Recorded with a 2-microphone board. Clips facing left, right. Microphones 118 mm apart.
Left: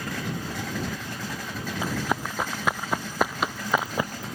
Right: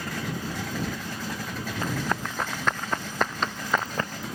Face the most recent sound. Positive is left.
turn(degrees=10)  # may be behind; listen again after turning